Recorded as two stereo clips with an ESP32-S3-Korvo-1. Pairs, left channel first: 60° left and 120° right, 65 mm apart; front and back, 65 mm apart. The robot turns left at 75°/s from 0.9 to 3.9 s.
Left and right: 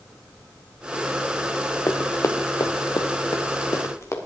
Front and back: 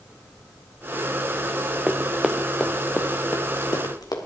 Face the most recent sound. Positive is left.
turn(degrees=15)